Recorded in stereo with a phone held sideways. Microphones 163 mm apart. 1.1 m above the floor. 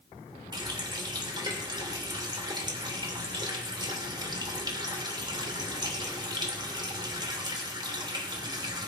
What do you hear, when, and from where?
0.5 s a running tap: 25° right (ahead or behind), 2.5 m